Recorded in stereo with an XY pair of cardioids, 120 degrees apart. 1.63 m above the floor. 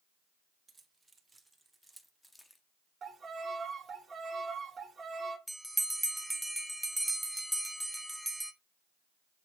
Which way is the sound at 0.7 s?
25° right.